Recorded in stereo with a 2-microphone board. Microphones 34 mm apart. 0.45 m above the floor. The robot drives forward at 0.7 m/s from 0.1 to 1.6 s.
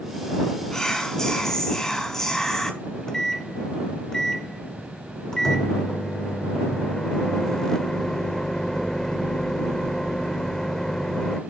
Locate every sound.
0.7 s whispering: 20° left (ahead or behind), 2.5 m; by 2.7 s 15° left (ahead or behind), 3 m
2.8 s a microwave: 15° left (ahead or behind), 1.1 m